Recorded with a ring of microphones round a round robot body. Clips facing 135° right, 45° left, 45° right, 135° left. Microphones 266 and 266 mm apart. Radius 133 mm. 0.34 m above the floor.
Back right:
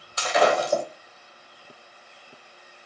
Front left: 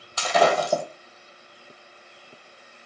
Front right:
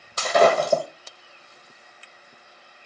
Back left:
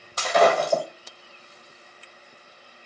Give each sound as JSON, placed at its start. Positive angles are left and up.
{"t": 0.2, "sound": "breaking glass", "azimuth_deg": 20, "distance_m": 1.2}